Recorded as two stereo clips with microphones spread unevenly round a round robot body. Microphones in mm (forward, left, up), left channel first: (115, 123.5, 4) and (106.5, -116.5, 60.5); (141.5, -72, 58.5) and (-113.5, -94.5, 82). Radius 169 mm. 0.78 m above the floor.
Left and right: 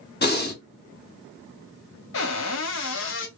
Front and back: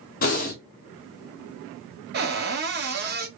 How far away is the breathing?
About 2 m.